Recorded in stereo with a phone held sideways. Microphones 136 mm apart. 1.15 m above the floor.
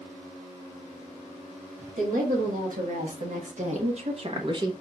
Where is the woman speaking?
85° right, 1.7 m; by 4.7 s 30° right (ahead or behind), 0.8 m.